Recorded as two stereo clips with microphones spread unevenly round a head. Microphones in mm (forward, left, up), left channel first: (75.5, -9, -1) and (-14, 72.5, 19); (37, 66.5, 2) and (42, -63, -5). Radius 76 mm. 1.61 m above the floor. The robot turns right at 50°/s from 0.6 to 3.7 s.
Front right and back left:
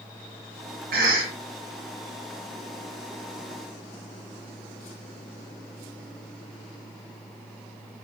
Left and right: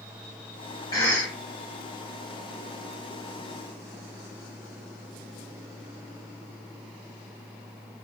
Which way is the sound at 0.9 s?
160° left.